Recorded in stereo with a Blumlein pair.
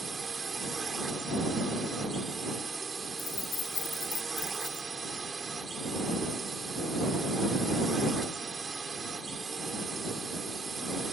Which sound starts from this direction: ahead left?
Keys jangling, at 3.2 s.